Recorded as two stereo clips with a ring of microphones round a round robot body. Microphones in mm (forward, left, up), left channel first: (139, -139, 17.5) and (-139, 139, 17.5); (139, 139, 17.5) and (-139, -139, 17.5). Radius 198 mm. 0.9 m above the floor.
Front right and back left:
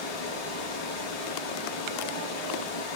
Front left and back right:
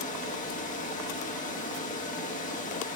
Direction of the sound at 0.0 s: 25° right.